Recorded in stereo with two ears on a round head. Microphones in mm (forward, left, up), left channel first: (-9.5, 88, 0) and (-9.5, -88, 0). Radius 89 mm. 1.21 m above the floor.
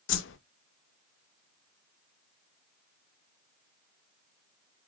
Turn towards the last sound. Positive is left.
turn(degrees=65)  # may be behind; listen again after turning